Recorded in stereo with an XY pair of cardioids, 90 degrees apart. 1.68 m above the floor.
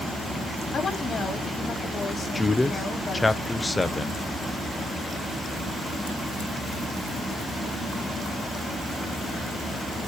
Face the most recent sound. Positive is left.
turn(degrees=20)